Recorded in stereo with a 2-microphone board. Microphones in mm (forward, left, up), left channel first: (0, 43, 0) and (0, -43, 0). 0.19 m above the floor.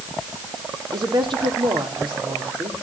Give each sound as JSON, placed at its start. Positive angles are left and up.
{"t": 0.9, "sound": "a woman speaking", "side_deg": -75, "distance_m": 5.5}